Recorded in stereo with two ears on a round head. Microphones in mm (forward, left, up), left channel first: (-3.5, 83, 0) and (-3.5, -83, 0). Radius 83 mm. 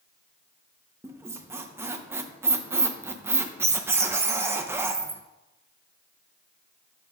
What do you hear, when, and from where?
1.0 s a squeak: 10° right (ahead or behind), 0.7 m